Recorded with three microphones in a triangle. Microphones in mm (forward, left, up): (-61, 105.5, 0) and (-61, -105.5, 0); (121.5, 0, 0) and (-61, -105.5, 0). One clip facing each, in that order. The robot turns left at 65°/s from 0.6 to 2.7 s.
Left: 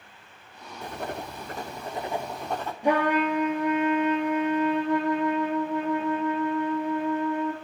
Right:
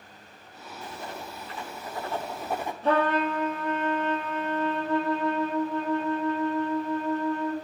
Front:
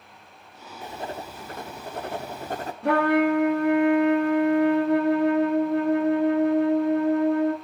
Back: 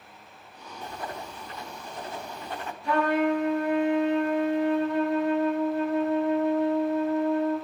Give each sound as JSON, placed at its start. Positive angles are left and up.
{"t": 0.8, "sound": "writing", "azimuth_deg": 105, "distance_m": 0.7}
{"t": 2.8, "sound": "a trumpet", "azimuth_deg": 15, "distance_m": 1.4}